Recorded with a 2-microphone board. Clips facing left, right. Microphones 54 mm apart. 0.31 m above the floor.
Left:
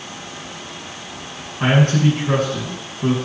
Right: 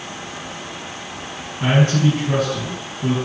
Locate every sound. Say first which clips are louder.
1.6 s a man speaking: left 1 dB; 40° left (ahead or behind), 4 m